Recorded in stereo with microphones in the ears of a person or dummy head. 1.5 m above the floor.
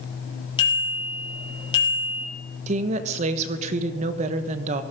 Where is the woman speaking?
40° right (ahead or behind), 1.2 m.